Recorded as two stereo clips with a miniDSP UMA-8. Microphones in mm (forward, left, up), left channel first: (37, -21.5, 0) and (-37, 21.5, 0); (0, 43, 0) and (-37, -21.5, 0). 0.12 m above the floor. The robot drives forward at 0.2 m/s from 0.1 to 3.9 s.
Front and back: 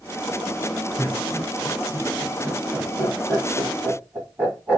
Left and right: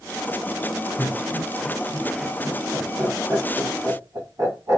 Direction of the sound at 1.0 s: 135° right.